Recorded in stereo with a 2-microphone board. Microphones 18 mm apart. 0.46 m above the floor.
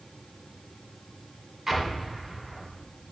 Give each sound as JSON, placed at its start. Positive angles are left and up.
{"t": 1.7, "sound": "an explosion", "side_deg": -15, "distance_m": 2.0}